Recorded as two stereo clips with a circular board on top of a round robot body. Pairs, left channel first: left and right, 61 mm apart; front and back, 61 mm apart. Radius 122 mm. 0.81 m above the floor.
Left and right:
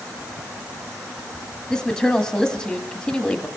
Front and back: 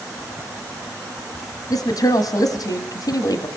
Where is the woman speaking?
Straight ahead, 1.9 m.